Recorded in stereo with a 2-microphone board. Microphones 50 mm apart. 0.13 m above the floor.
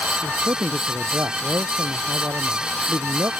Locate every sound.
0.2 s a man speaking: 60° right (ahead or behind); by 3.3 s 75° right (ahead or behind)